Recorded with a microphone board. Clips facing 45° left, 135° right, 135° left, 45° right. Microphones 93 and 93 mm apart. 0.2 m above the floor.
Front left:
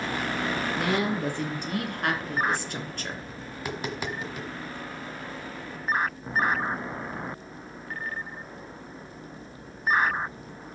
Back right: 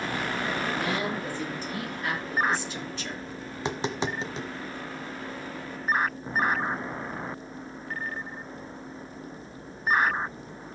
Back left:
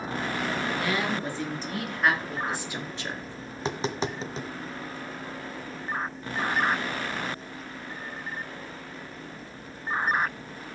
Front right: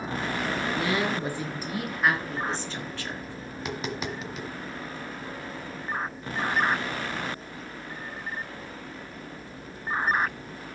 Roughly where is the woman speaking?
Ahead left.